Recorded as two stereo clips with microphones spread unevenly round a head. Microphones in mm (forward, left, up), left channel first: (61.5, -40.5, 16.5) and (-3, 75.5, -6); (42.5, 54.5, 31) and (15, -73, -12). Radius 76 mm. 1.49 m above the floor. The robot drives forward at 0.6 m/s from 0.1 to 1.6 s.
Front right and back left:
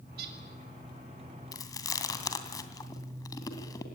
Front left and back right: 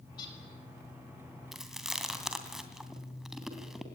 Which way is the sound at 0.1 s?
135° left.